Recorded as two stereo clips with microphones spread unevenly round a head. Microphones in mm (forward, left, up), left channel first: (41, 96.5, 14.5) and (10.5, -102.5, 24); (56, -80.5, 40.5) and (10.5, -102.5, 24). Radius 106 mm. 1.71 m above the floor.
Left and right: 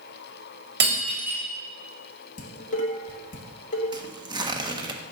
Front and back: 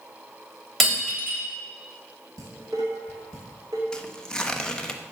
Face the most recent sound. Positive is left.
turn(degrees=-35)